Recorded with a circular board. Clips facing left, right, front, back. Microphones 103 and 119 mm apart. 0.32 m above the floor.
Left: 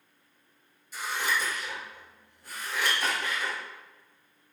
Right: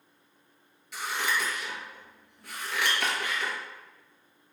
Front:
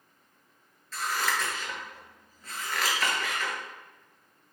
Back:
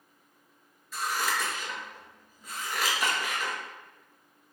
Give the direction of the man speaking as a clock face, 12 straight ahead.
I don't hear a man speaking.